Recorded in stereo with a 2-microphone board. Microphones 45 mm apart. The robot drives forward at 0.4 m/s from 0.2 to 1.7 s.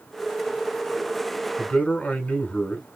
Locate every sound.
1.6 s a man speaking: 30° left (ahead or behind), 1.4 m